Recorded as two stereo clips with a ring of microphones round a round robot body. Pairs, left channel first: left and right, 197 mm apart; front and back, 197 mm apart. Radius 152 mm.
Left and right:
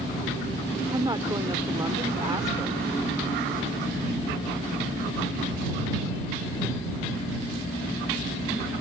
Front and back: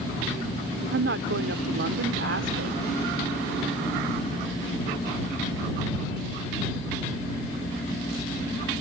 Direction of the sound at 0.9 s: 165° right.